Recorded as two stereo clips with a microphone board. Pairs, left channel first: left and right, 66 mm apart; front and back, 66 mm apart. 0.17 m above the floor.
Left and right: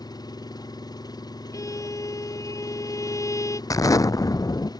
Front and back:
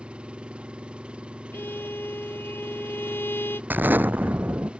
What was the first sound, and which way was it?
An engine running, 105° left.